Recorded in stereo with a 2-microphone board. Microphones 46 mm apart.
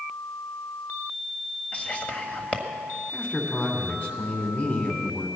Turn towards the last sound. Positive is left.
turn(degrees=40)  # may be behind; listen again after turning